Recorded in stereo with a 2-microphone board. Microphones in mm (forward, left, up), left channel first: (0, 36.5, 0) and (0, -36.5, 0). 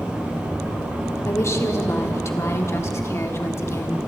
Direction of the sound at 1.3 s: 40° left (ahead or behind).